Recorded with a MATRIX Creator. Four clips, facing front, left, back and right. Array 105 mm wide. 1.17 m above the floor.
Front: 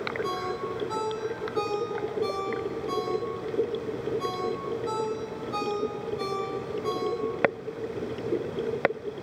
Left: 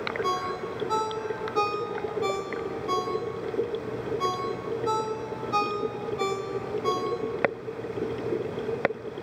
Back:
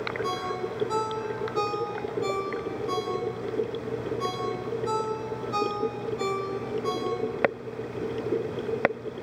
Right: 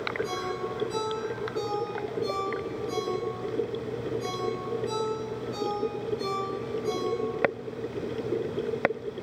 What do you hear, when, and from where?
0.2 s a ringtone: 100° left, 8.5 m